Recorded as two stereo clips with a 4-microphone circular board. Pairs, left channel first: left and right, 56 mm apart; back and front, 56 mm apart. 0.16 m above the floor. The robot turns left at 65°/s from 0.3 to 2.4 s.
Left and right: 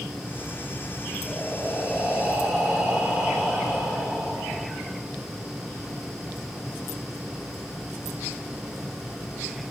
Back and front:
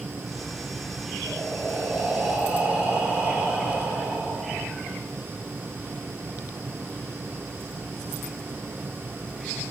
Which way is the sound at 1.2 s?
40° left.